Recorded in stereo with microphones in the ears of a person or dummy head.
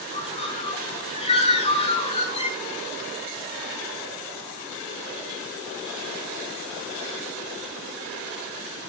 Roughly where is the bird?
Left.